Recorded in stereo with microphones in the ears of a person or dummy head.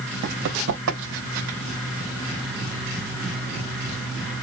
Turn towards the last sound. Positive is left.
turn(degrees=-70)  # may be behind; listen again after turning